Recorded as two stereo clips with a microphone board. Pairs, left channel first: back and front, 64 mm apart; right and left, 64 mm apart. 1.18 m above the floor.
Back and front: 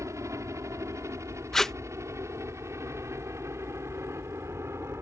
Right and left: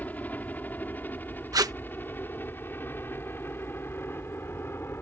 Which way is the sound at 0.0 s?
30° right.